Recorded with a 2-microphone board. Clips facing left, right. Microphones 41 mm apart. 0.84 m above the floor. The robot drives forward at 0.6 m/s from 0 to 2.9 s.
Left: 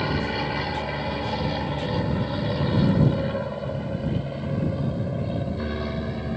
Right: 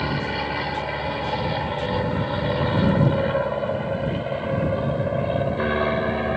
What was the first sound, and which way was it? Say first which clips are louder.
An aircraft: right 1 dB; 5° right (ahead or behind).